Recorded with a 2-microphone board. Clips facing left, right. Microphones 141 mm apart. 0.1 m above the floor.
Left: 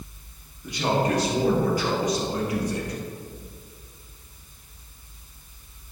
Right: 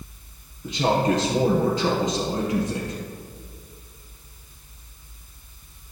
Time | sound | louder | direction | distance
0.6 | a man speaking | right 3 dB | 25° right (ahead or behind) | 2.5 m